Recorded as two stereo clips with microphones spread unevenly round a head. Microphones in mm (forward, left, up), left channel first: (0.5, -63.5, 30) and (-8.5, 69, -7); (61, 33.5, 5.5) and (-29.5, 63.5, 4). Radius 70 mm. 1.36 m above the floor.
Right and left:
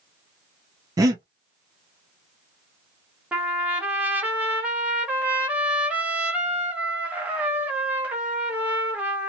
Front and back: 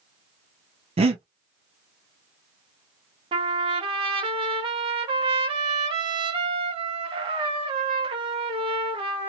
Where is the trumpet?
Straight behind, 0.9 m.